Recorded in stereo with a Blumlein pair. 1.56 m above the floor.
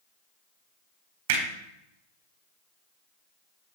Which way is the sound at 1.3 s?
50° right.